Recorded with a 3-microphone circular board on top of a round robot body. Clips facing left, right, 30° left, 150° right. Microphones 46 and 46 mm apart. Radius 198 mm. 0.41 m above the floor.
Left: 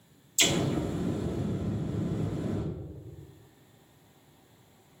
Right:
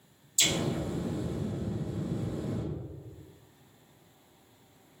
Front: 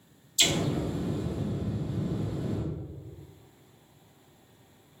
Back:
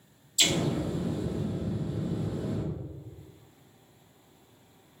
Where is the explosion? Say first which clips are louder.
Left 3 dB, even; 125° left, 1.3 m.